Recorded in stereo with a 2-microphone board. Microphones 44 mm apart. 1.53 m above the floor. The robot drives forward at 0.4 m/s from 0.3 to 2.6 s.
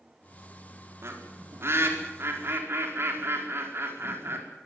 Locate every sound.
1.0 s a bird: 70° right (ahead or behind), 4.5 m; by 4.4 s 65° right (ahead or behind), 5 m